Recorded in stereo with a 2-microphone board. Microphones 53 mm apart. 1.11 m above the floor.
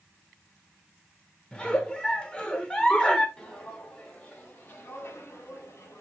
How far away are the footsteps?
About 2.5 m.